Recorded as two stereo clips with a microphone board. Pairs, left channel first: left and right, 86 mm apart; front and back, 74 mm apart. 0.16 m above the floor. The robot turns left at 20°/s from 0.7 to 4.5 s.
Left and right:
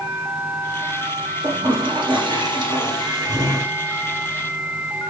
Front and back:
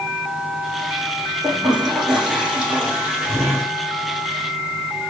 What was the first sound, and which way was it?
A toilet flushing, 85° right.